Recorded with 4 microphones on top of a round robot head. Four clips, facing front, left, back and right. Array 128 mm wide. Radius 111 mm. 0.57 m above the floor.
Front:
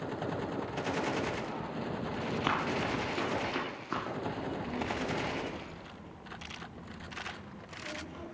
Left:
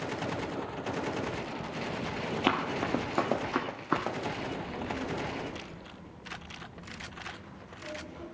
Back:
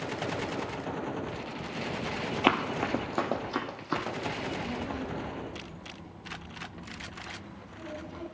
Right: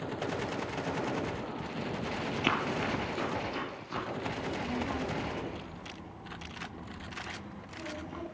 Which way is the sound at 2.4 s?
160° left.